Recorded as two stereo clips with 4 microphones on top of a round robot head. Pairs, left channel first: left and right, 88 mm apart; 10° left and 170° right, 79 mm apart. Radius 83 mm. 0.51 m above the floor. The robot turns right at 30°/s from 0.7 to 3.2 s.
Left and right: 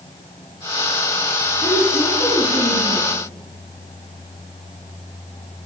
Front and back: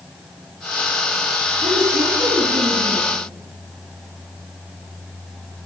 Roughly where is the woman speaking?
Behind.